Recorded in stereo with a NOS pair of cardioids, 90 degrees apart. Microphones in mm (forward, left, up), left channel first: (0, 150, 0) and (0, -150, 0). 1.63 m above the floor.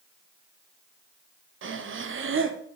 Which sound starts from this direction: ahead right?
Breathing, at 1.6 s.